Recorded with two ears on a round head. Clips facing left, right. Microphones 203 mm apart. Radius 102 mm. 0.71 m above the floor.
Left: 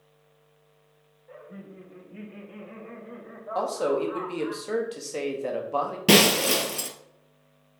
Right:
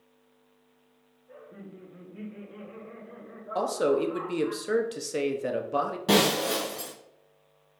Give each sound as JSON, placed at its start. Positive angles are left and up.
{"t": 1.3, "sound": "laughter", "side_deg": 75, "distance_m": 3.0}
{"t": 3.5, "sound": "a man speaking", "side_deg": -20, "distance_m": 0.8}
{"t": 6.1, "sound": "breaking glass", "side_deg": 35, "distance_m": 0.9}